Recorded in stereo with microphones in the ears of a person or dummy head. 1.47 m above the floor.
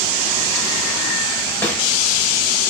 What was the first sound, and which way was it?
A snare drum, 10° left (ahead or behind).